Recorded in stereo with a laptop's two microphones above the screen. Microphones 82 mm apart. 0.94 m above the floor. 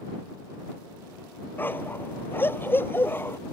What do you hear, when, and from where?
1.6 s a dog barking: 25° left (ahead or behind)